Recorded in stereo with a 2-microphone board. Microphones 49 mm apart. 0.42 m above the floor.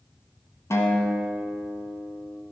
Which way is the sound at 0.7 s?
80° left.